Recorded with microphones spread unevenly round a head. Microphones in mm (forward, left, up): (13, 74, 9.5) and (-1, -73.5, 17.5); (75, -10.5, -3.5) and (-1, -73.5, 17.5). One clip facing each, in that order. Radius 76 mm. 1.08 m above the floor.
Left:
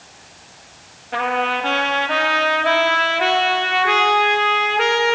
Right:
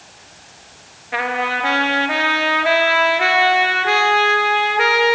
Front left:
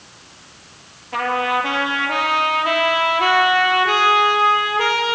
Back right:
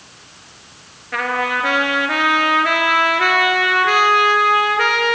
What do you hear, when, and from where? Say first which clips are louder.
1.1 s a trumpet: left 1 dB, front left 1 dB; 175° right, 2.5 m